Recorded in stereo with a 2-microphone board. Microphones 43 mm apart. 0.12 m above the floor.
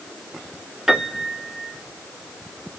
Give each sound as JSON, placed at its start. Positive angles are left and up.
{"t": 0.9, "sound": "a piano", "side_deg": -10, "distance_m": 1.1}